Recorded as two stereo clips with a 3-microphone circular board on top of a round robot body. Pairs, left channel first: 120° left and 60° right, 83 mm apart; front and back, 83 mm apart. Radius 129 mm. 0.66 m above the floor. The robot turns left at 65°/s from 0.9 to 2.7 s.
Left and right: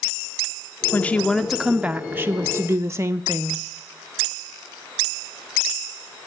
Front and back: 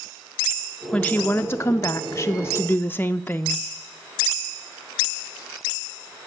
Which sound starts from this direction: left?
A woman speaking, at 0.9 s.